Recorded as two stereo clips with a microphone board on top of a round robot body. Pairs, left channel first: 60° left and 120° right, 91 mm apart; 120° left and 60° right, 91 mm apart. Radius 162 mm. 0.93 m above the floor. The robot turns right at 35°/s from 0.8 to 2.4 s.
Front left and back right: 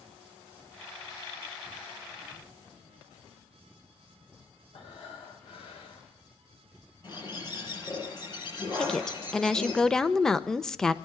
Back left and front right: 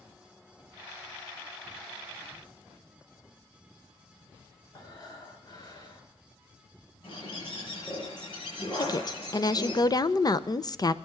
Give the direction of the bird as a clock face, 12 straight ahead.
9 o'clock.